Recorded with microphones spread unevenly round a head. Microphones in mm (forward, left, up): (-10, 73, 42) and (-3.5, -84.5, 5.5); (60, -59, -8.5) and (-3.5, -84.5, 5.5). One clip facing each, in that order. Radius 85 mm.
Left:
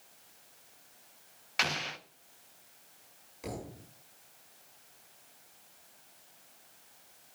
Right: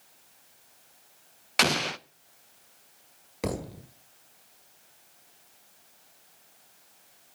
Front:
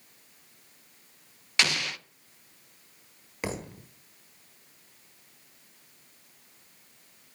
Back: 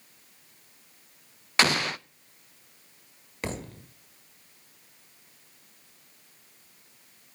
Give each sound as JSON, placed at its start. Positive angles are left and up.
{"t": 1.6, "sound": "an explosion", "azimuth_deg": -105, "distance_m": 0.6}
{"t": 3.4, "sound": "a thud", "azimuth_deg": -65, "distance_m": 1.6}